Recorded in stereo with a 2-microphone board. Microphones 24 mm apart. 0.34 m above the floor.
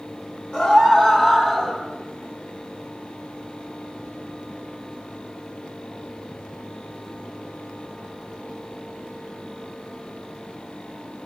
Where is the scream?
40° left (ahead or behind), 2 m; by 1.8 s 25° left (ahead or behind), 1.8 m.